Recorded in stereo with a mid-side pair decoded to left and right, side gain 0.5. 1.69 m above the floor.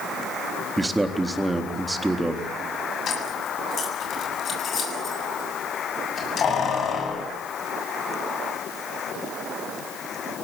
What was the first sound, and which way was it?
A man speaking, 10° right.